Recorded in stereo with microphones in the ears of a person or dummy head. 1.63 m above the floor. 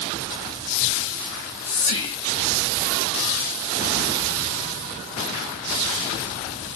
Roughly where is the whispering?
Left.